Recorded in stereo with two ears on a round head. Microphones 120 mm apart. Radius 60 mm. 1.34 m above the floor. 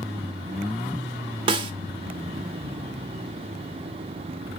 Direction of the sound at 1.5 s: 35° right (ahead or behind).